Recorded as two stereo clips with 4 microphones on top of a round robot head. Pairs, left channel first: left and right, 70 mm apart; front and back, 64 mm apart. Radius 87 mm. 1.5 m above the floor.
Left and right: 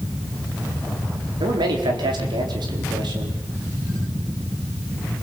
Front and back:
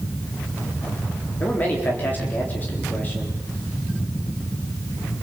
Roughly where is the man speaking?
Right.